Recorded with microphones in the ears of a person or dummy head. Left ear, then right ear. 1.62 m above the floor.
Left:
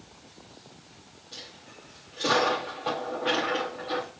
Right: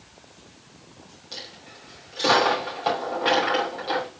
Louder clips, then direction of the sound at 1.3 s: Right 5 dB; 10° right (ahead or behind).